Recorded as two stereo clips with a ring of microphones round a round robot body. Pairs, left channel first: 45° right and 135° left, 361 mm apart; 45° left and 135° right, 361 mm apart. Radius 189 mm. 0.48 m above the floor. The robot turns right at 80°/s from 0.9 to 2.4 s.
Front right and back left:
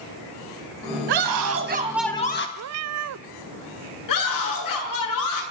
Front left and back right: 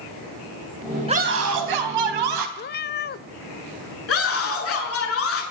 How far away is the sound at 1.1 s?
About 4 m.